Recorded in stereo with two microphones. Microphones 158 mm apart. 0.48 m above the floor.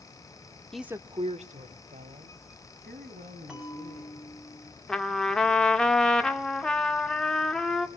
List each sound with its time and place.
0.7 s a woman speaking: 5° left (ahead or behind), 0.7 m; by 4.2 s 70° right (ahead or behind), 5 m
3.5 s a bell: 5° right (ahead or behind), 7 m
4.9 s a trumpet: 5° left (ahead or behind), 1.3 m